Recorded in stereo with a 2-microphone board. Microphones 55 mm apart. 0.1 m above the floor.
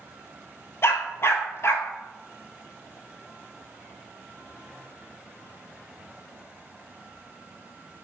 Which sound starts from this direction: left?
A dog barking, at 0.8 s.